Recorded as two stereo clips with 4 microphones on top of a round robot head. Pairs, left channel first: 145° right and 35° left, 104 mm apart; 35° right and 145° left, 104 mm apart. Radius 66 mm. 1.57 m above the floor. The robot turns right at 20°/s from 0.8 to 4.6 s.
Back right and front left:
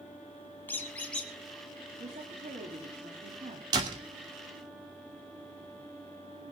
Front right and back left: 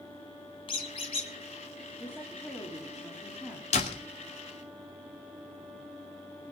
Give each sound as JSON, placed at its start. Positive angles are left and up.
{"t": 0.7, "sound": "a squeak", "azimuth_deg": -75, "distance_m": 2.0}
{"t": 2.0, "sound": "a woman speaking", "azimuth_deg": 35, "distance_m": 3.5}
{"t": 3.7, "sound": "a door slam", "azimuth_deg": -15, "distance_m": 2.5}